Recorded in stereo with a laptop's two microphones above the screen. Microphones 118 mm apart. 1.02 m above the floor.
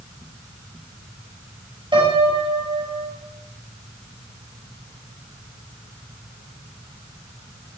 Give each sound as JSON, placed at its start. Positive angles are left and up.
{"t": 1.9, "sound": "a piano", "side_deg": -45, "distance_m": 6.0}